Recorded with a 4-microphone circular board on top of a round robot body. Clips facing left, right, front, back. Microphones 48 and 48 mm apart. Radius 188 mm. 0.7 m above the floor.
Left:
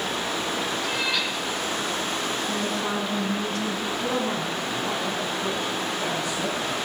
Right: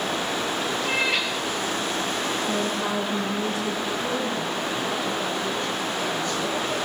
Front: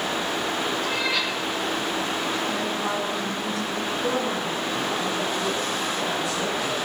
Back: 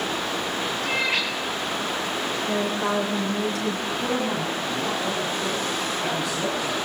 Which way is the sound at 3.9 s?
165° left.